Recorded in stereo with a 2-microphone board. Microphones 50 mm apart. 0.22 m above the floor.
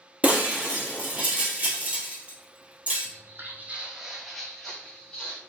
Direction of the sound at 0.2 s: 30° right (ahead or behind).